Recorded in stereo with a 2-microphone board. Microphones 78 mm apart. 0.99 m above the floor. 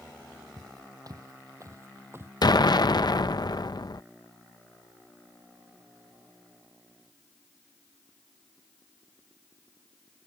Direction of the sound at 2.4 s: 60° left (ahead or behind).